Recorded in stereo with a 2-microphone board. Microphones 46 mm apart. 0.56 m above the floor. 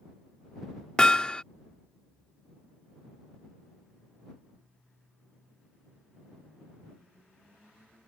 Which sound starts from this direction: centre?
Hammering, at 1.0 s.